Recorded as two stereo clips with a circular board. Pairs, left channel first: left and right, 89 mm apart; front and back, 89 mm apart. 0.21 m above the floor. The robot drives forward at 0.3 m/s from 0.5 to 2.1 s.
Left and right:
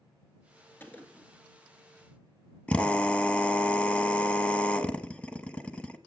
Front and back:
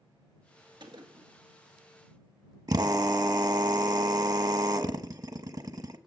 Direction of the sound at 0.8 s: 155° left.